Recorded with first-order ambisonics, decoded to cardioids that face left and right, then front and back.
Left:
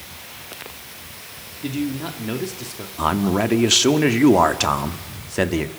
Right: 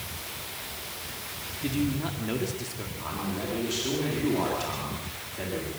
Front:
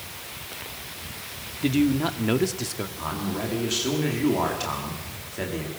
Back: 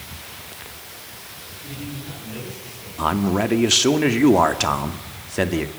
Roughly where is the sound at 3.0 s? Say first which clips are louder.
Left 15 dB, back 12 dB; behind left.